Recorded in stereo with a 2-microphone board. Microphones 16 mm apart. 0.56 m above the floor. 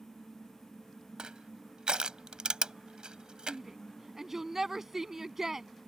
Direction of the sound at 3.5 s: 25° right (ahead or behind).